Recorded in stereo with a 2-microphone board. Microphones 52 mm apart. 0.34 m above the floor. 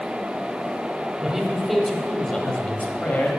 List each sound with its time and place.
1.2 s a man speaking: 10° right (ahead or behind), 1.5 m; by 3.3 s 40° left (ahead or behind), 1.5 m